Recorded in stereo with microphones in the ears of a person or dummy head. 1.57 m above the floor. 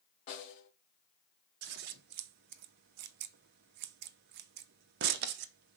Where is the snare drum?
35° left (ahead or behind), 1.7 m.